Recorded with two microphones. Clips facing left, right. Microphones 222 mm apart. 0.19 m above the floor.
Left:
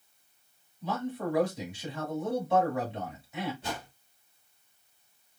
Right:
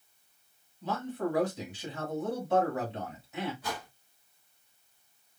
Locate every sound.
0.8 s a man speaking: centre (ahead or behind), 1.5 m
3.6 s a whoosh: 25° left (ahead or behind), 0.9 m